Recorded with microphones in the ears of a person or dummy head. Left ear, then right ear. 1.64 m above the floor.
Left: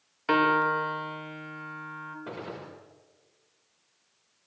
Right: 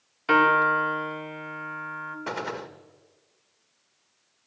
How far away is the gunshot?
About 1.4 m.